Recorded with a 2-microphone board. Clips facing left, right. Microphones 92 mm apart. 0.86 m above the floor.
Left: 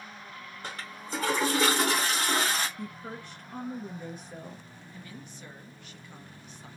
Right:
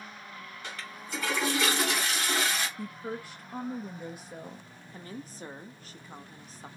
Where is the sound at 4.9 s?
35° right (ahead or behind), 0.7 m.